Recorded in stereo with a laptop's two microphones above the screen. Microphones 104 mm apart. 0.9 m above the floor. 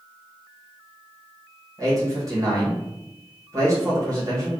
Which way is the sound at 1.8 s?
35° right (ahead or behind).